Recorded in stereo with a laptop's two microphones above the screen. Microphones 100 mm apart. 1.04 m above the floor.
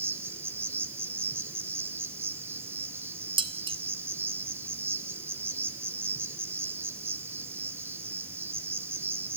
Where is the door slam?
I don't hear a door slam.